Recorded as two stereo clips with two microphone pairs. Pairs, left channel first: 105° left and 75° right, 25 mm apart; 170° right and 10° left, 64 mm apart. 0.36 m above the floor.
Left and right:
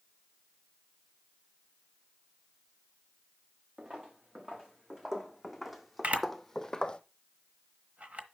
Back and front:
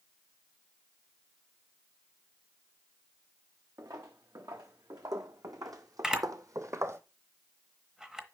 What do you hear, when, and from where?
3.8 s footsteps: 15° right, 2 m; by 7.0 s 55° left, 0.8 m
6.0 s a camera shutter: 75° right, 0.9 m